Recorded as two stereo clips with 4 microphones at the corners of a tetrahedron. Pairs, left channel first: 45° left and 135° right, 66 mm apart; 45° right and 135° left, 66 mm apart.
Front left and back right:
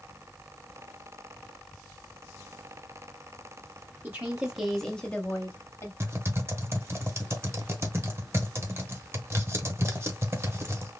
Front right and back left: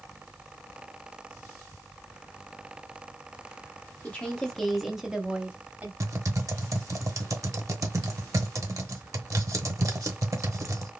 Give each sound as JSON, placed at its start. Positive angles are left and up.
{"t": 4.0, "sound": "a woman speaking", "azimuth_deg": -95, "distance_m": 1.1}
{"t": 6.0, "sound": "typing on a keyboard", "azimuth_deg": 175, "distance_m": 1.0}